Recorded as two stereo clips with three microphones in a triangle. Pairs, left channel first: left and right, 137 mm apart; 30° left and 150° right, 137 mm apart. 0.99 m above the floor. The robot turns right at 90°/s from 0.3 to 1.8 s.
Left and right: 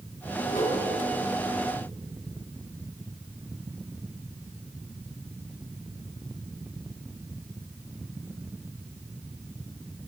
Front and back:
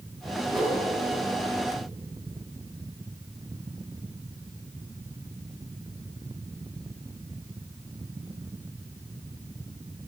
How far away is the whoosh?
About 7.5 m.